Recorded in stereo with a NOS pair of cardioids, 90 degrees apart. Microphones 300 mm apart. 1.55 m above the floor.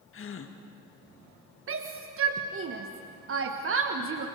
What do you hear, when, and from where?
0.1 s a gasp: 45° left, 1.9 m
1.7 s a shout: 45° right, 1.5 m